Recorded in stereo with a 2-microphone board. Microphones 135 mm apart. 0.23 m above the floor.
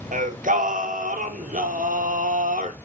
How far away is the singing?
About 1.6 m.